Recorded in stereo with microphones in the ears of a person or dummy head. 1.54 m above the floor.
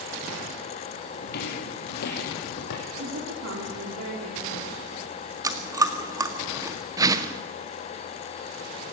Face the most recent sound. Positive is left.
turn(degrees=-15)  # may be behind; listen again after turning